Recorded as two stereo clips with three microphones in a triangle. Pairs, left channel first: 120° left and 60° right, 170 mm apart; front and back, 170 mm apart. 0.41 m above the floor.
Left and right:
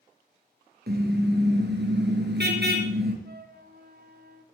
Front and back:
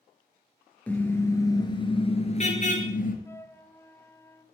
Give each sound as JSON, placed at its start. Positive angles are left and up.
{"t": 0.9, "sound": "a car horn", "azimuth_deg": -80, "distance_m": 4.0}
{"t": 3.2, "sound": "a flute", "azimuth_deg": -75, "distance_m": 1.3}